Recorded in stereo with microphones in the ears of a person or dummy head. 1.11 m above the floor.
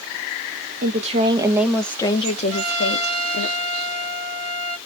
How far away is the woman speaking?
About 0.7 m.